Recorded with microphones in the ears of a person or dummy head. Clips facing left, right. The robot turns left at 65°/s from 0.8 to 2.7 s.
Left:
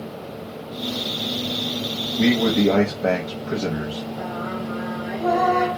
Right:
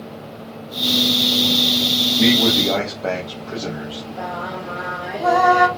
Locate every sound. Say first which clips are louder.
2.2 s a man speaking: even; 175° right, 0.7 m; by 4.0 s 150° left, 0.7 m
4.2 s singing: even; 65° right (ahead or behind), 1.2 m